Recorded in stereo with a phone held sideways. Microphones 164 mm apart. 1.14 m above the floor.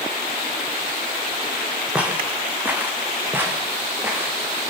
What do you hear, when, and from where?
1.9 s footsteps: 10° right (ahead or behind), 4 m; by 4.7 s 15° right (ahead or behind), 5 m